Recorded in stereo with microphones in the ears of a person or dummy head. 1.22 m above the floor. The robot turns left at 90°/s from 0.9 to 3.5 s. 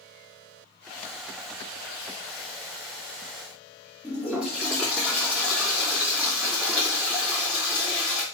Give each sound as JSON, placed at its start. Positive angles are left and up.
{"t": 4.0, "sound": "a toilet flushing", "side_deg": -10, "distance_m": 2.0}